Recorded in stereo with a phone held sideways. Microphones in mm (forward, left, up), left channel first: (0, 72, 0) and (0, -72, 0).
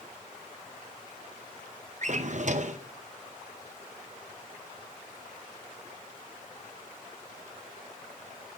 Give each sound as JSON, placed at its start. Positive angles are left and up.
{"t": 2.0, "sound": "a drawer", "side_deg": -55, "distance_m": 0.7}